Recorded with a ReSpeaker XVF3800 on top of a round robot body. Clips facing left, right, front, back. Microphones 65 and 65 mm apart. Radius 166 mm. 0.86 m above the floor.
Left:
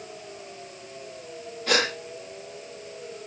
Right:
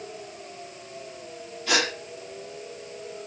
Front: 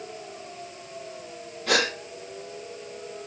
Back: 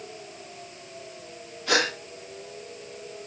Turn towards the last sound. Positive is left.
turn(degrees=45)